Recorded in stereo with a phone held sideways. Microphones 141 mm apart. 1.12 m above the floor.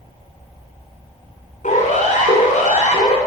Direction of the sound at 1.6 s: 65° left (ahead or behind).